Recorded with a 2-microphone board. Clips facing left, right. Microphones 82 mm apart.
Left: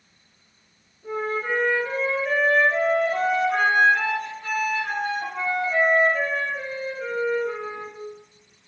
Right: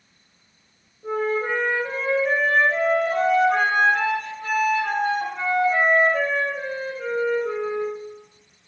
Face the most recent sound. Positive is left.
turn(degrees=-40)  # may be behind; listen again after turning